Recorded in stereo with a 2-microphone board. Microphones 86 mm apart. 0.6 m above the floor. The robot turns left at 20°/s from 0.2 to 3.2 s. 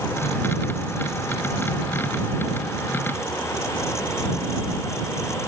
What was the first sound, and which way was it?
Only background noise.